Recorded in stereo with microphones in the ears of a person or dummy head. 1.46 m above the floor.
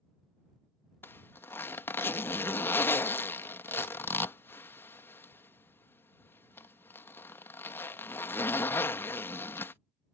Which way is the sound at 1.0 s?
15° left (ahead or behind).